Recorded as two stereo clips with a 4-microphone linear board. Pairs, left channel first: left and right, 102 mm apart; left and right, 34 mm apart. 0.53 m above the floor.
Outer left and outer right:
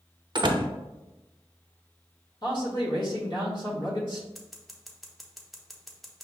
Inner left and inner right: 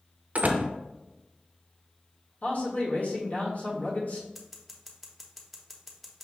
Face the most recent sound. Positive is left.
turn(degrees=0)  # may be behind; listen again after turning